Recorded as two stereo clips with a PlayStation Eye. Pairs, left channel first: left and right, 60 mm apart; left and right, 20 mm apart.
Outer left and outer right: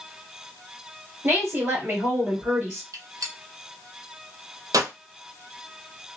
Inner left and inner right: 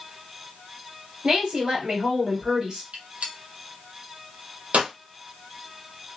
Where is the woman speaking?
40° right (ahead or behind), 2 m.